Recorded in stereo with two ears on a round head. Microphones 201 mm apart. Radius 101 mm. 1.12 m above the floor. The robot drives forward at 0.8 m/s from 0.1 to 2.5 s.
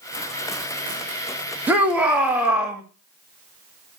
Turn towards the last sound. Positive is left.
turn(degrees=-5)  # may be behind; listen again after turning